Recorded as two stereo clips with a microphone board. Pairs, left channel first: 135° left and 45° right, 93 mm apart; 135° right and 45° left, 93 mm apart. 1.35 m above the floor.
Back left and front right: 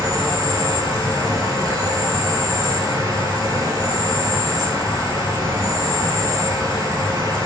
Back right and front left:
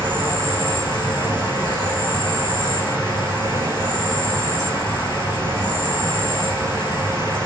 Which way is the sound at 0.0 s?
90° right.